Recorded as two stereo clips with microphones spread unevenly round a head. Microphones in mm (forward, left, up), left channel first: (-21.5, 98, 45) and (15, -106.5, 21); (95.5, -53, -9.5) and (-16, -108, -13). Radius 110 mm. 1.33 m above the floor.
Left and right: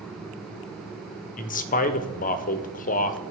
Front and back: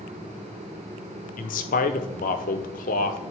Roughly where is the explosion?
No explosion in this recording.